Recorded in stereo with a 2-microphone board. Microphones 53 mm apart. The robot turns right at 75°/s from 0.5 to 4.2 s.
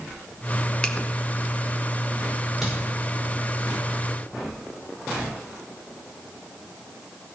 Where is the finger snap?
20° left (ahead or behind), 0.9 m; by 0.9 s 30° left (ahead or behind), 0.9 m.